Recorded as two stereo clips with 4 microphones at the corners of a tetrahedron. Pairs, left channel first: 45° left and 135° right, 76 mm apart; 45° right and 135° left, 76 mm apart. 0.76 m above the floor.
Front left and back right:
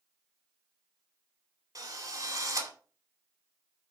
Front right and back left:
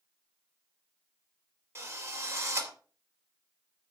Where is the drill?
175° right, 2.5 m.